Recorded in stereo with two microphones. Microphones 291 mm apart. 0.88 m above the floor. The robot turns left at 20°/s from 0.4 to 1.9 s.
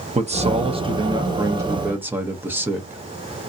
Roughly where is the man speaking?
Behind right.